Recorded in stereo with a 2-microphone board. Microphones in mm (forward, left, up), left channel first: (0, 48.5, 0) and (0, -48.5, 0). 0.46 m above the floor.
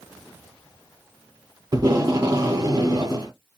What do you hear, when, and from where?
1.7 s tape being pulled: 40° right (ahead or behind), 1.4 m